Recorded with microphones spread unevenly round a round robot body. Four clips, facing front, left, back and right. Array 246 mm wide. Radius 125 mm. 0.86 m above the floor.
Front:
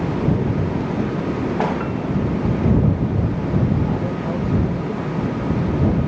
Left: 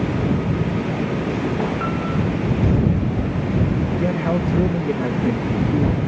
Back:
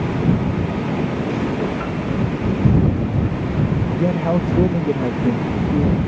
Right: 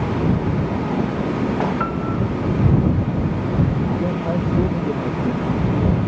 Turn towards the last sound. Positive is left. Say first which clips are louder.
# left 1 dB, back 5 dB
turn(degrees=165)